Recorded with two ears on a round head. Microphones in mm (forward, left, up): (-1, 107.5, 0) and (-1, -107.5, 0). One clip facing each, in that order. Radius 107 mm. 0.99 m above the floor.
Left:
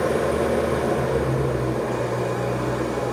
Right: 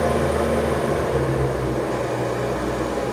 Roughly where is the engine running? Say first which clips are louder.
Right 1 dB; centre.